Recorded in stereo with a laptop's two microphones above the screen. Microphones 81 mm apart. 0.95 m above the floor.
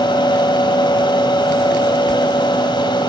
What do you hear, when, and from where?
0.0 s a fan: 75° left (ahead or behind), 1.8 m